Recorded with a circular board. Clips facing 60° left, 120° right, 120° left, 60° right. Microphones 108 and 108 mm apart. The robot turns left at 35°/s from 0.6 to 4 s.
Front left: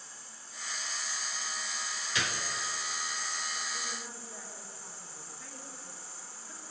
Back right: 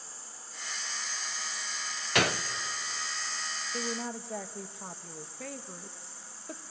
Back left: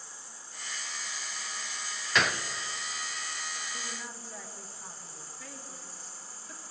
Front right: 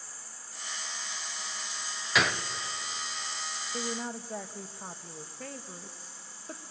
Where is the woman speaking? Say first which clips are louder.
Back right 7 dB, front right 7 dB; 95° right, 1.4 m; by 6.6 s 105° right, 1.4 m.